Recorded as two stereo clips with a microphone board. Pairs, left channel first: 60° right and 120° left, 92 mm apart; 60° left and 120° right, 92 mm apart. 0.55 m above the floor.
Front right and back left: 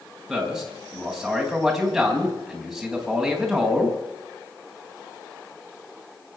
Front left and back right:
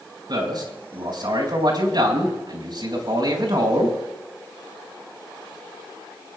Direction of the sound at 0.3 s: 155° right.